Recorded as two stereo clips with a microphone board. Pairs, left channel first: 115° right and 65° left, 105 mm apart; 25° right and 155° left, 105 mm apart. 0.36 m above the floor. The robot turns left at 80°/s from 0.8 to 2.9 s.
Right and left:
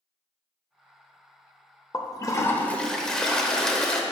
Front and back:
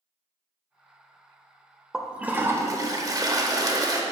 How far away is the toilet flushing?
About 0.6 m.